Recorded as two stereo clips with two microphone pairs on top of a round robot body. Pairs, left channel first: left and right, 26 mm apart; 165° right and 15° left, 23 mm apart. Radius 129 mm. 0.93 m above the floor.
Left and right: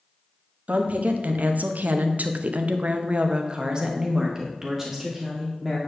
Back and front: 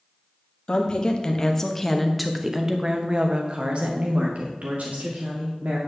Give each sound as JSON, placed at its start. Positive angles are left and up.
{"t": 0.7, "sound": "a woman speaking", "azimuth_deg": -120, "distance_m": 1.4}